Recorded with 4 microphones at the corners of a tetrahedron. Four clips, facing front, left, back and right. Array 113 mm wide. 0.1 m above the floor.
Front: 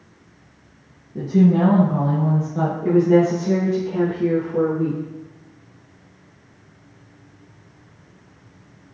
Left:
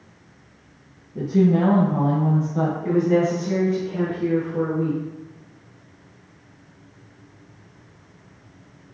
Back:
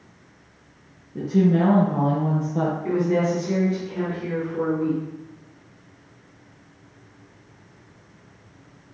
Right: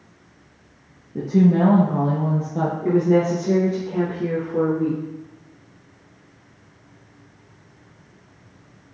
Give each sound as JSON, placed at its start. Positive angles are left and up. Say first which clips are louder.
{"t": 1.1, "sound": "a woman speaking", "louder": "right 1 dB, front 3 dB", "azimuth_deg": -95, "distance_m": 2.0}
{"t": 2.8, "sound": "a woman speaking", "louder": "right 2 dB, front 9 dB", "azimuth_deg": -55, "distance_m": 3.5}